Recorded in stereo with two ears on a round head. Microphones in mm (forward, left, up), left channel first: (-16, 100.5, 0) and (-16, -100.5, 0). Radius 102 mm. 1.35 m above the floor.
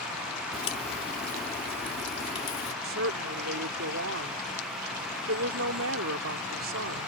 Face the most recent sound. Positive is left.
turn(degrees=-65)  # may be behind; listen again after turning